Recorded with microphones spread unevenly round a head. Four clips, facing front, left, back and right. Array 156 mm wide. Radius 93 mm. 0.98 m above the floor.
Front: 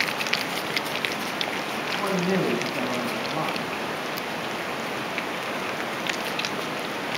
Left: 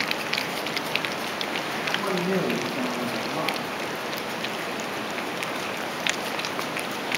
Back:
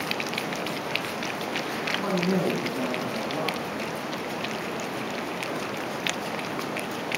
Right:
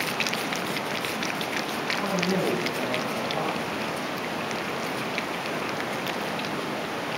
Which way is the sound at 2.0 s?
5° left.